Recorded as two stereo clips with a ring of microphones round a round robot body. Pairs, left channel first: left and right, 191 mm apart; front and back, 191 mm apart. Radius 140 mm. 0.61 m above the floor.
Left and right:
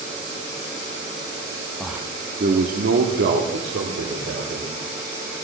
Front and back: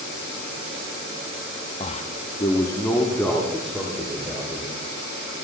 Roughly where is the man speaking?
Ahead.